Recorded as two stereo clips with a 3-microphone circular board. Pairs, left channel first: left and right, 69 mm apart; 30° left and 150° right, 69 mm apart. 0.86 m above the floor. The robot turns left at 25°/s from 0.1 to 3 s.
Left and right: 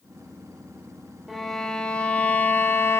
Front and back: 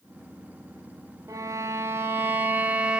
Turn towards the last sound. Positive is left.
turn(degrees=135)